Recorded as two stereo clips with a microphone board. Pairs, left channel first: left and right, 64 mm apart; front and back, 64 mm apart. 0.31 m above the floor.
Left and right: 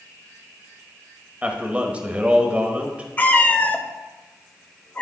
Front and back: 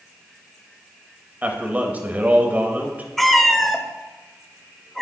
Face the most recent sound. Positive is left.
turn(degrees=85)